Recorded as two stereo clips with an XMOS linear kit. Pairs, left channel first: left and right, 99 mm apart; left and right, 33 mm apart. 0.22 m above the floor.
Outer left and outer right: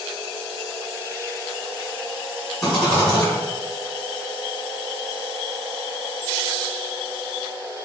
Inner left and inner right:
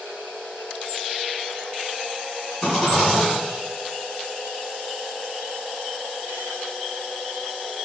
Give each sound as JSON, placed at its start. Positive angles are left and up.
{"t": 2.6, "sound": "a rattle", "side_deg": 5, "distance_m": 1.7}